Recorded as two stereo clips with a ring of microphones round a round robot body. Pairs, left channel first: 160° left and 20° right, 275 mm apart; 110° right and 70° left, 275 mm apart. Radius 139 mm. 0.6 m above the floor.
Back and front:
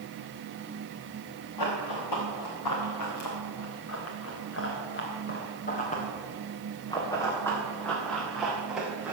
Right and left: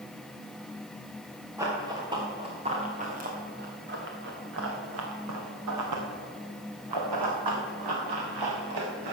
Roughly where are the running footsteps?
Behind left.